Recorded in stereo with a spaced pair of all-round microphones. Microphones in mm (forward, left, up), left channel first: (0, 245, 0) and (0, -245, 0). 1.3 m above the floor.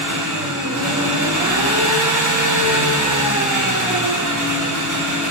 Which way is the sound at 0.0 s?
40° right (ahead or behind).